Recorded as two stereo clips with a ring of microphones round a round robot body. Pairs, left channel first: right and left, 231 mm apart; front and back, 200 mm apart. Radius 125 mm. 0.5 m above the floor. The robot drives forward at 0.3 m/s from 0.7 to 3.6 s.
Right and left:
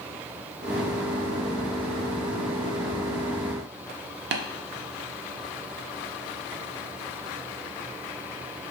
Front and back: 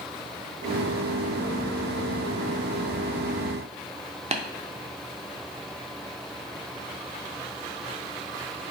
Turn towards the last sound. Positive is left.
turn(degrees=125)